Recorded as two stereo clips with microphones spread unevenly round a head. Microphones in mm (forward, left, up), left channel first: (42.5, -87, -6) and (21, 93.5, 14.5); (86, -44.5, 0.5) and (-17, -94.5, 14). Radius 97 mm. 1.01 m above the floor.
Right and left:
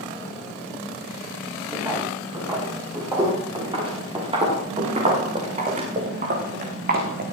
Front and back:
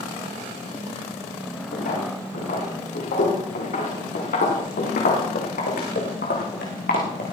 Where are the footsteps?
25° left, 9.5 m; by 7.3 s 65° left, 4.5 m.